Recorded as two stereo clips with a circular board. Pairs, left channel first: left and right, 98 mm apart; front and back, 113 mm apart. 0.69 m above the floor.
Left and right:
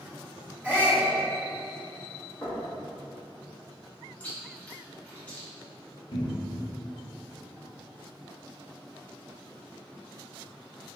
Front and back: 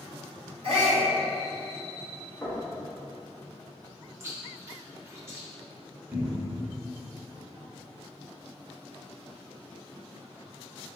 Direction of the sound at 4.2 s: 145° left.